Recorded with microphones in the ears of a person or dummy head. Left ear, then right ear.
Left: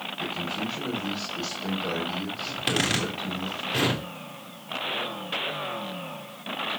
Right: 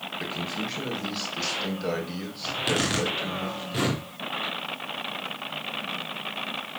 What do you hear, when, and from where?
0.2 s a man speaking: 50° right (ahead or behind), 4 m
2.5 s a zipper: 10° left (ahead or behind), 3 m